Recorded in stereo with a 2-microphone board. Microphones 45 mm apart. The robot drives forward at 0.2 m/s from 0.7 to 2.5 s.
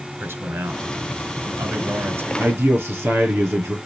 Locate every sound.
0.2 s a man speaking: 60° right (ahead or behind), 1.9 m; by 2.3 s 55° right (ahead or behind), 1.9 m
2.4 s a man speaking: 60° right (ahead or behind), 4 m